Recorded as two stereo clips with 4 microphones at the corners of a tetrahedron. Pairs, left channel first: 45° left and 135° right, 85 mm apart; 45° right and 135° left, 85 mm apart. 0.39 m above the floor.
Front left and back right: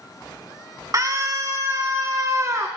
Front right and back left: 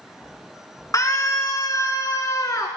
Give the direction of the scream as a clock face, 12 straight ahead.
3 o'clock.